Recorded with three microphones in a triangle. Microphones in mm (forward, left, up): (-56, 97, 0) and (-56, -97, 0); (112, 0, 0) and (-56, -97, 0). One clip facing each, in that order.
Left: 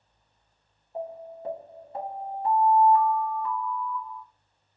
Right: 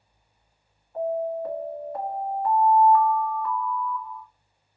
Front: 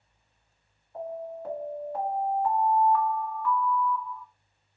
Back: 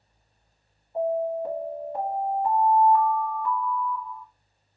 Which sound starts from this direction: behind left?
An alarm, at 0.9 s.